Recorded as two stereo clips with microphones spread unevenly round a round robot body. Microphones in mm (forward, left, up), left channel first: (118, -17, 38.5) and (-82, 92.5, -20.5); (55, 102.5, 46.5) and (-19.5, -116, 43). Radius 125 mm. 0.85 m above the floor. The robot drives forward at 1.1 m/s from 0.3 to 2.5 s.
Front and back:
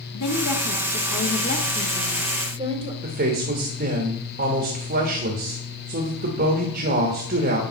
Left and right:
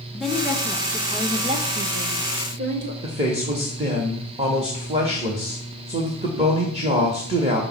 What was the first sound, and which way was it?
A woman speaking, 20° right.